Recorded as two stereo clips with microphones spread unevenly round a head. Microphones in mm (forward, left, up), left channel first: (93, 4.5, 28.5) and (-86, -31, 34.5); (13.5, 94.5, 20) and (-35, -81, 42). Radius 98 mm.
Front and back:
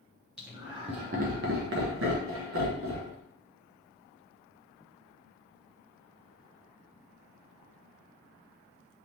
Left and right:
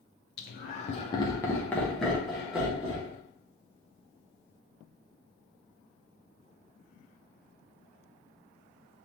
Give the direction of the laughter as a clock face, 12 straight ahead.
8 o'clock.